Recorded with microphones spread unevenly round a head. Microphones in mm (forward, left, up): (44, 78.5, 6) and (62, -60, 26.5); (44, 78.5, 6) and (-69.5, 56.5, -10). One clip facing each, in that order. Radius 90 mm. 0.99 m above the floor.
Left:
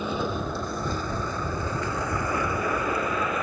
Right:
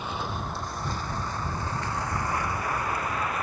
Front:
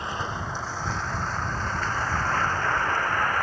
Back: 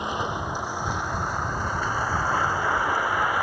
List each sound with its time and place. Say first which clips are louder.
0.0 s a vehicle: left 5 dB, back 3 dB; 120° left; by 3.4 s 110° left